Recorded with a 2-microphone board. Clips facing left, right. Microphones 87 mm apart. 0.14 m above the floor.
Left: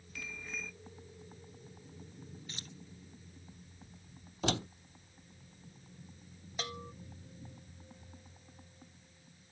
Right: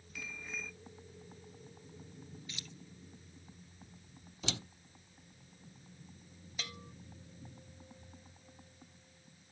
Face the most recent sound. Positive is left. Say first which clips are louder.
# left 6 dB
turn(degrees=40)  # may be behind; listen again after turning